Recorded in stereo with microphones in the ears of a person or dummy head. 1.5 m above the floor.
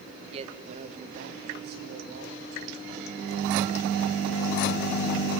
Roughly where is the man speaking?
Right.